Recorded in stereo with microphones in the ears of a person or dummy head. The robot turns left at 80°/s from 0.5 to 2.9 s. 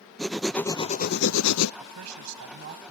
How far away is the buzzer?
I don't hear a buzzer.